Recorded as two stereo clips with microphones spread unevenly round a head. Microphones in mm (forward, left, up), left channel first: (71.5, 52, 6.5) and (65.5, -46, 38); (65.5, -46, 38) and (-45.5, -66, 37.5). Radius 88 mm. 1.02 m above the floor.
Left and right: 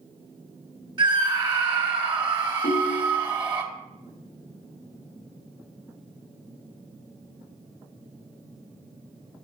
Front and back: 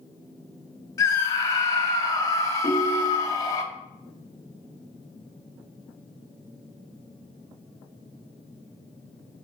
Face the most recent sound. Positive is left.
turn(degrees=80)